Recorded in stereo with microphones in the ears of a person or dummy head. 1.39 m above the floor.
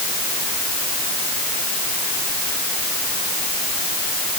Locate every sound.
Only background noise.